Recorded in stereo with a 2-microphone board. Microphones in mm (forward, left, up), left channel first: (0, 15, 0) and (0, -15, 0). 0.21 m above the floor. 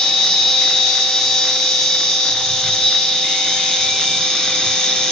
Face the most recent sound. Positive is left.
turn(degrees=20)  # may be behind; listen again after turning